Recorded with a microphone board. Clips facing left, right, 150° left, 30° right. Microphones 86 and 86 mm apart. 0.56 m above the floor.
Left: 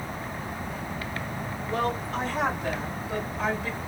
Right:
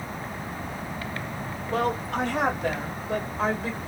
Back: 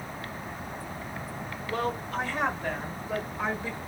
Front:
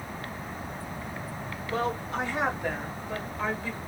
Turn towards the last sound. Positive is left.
turn(degrees=-145)